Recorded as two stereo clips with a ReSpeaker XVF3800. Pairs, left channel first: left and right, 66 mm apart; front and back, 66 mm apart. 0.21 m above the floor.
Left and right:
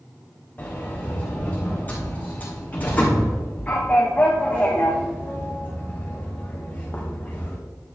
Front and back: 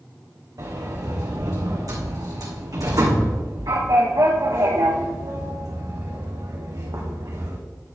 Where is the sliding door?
155° left, 2 m.